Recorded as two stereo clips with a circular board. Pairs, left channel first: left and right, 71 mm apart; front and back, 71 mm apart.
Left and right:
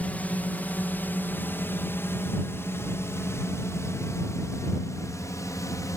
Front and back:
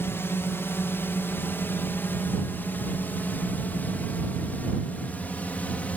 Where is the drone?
35° left; by 6.0 s 65° left.